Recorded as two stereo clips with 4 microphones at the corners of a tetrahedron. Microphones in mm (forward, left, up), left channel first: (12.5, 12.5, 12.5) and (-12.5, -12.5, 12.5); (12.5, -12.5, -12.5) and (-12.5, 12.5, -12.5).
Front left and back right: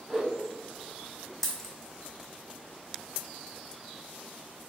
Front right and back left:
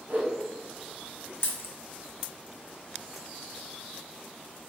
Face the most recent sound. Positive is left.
turn(degrees=-35)